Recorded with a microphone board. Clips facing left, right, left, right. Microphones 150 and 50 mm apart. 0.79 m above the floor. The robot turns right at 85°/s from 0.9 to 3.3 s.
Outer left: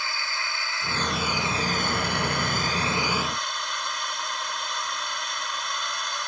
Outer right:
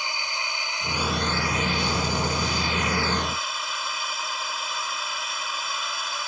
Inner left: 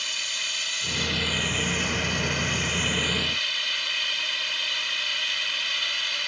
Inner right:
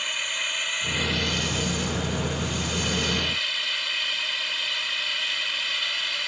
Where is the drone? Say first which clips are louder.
Outer right 1 dB, inner right 3 dB; 20° right; by 6.3 s 175° right.